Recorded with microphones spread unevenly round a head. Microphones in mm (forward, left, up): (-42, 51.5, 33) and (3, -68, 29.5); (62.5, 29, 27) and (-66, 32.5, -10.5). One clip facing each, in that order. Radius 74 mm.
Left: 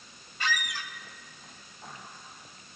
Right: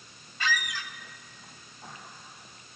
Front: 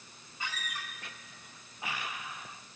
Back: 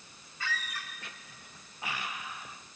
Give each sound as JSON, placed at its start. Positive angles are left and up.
{"t": 0.4, "sound": "a squeak", "azimuth_deg": -80, "distance_m": 0.5}